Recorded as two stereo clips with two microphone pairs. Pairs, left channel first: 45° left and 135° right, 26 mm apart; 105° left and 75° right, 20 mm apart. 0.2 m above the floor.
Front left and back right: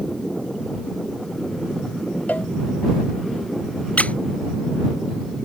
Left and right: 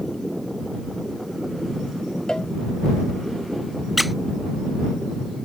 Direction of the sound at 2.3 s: 55° left.